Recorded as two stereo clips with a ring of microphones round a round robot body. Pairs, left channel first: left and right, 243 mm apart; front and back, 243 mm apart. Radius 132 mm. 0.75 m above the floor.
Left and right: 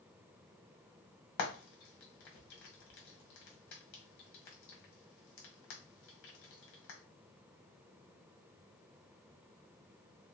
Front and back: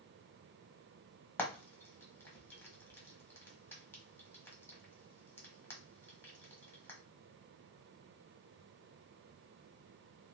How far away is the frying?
About 1.4 m.